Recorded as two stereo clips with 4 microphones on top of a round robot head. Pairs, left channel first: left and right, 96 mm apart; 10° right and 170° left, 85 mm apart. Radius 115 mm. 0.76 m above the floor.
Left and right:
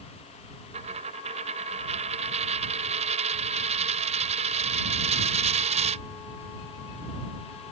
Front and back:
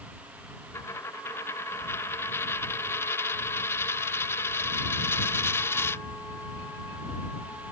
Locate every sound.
0.7 s a dropped coin: 75° right